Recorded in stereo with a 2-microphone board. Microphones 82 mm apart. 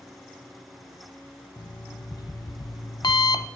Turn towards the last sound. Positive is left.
turn(degrees=60)  # may be behind; listen again after turning